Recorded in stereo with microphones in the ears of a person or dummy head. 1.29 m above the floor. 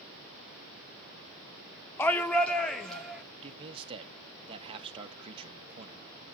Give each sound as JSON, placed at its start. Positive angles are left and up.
{"t": 2.0, "sound": "a shout", "side_deg": 15, "distance_m": 0.5}
{"t": 3.4, "sound": "a man speaking", "side_deg": -30, "distance_m": 1.5}